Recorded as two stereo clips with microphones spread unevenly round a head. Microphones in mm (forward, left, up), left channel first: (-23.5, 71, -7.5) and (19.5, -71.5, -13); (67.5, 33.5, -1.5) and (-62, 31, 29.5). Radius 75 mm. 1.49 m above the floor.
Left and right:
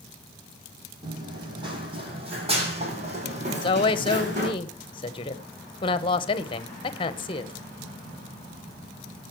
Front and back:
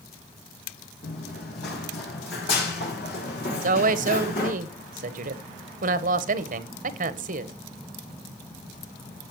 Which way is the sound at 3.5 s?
165° left.